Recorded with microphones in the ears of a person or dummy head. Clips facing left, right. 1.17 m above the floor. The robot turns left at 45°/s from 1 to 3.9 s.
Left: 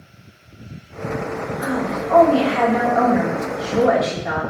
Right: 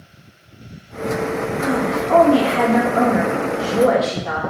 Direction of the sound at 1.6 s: 95° right.